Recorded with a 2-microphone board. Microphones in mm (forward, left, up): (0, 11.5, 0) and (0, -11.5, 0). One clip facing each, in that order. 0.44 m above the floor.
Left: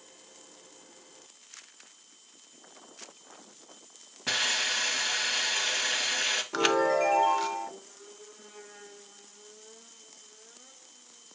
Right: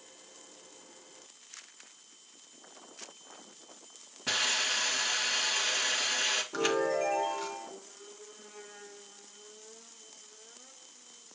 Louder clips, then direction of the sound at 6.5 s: Left 7 dB; 40° left (ahead or behind).